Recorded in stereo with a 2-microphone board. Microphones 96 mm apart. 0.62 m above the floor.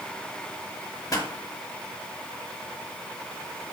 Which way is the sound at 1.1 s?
40° left (ahead or behind).